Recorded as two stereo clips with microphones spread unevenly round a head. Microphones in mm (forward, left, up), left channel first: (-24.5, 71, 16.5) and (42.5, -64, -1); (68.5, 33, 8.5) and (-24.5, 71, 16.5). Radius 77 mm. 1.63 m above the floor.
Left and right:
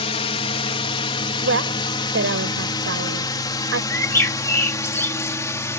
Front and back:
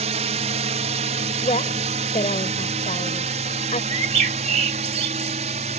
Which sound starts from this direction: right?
A woman speaking, at 1.4 s.